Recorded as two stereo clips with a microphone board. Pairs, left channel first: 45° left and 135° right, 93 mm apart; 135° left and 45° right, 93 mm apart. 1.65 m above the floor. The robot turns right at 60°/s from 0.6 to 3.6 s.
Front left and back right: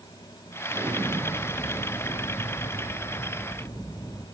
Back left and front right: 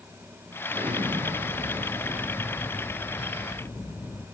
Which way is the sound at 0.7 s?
75° right.